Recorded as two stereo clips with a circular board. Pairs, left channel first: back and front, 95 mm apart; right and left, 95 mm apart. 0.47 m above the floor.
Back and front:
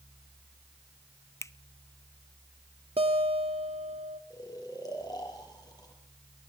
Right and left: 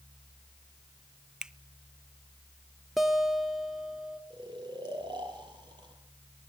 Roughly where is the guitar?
Ahead.